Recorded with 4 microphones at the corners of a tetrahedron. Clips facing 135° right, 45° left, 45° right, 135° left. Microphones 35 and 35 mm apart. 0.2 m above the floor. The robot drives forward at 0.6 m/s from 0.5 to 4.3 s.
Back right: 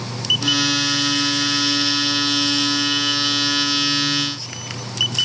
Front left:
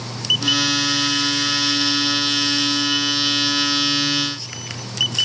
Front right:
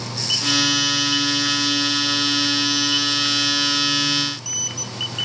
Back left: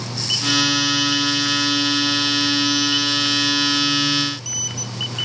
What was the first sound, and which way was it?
Only background noise.